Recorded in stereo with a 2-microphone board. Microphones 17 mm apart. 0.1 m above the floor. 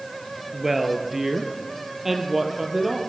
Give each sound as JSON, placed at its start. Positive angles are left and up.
{"t": 0.5, "sound": "a woman speaking", "side_deg": -20, "distance_m": 2.0}